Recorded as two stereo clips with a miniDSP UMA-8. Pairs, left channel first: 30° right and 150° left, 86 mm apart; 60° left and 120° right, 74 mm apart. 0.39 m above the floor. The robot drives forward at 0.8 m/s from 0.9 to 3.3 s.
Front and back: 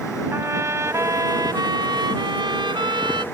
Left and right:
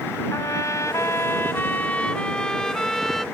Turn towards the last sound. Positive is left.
turn(degrees=150)